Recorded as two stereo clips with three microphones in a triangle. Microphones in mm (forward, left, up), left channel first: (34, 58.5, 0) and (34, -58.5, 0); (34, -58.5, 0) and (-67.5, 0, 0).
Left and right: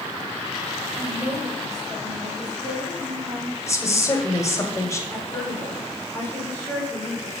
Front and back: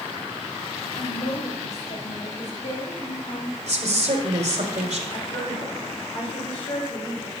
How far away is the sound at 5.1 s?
About 5.5 m.